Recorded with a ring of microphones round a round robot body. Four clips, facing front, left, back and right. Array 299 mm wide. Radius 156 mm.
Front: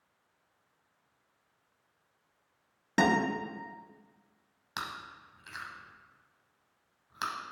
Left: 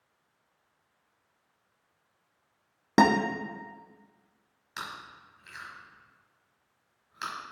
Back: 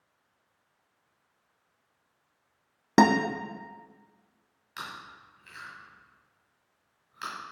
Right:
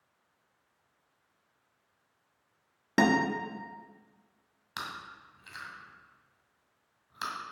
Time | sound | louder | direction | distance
3.0 | a guitar | left 3 dB, back 6 dB | 155° left | 1.0 m
4.8 | chewing | even, front 1 dB | 25° right | 1.8 m